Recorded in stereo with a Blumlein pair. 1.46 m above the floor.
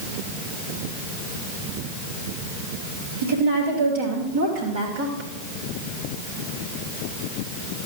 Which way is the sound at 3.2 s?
65° right.